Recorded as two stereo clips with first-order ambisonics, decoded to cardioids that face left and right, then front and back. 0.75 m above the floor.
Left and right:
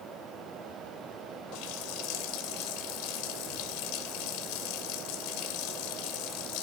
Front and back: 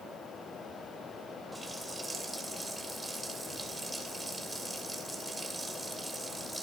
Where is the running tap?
100° left, 2.5 m.